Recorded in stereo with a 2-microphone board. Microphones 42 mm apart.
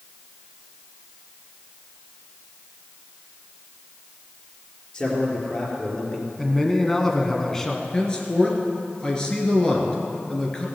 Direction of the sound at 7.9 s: 20° left (ahead or behind).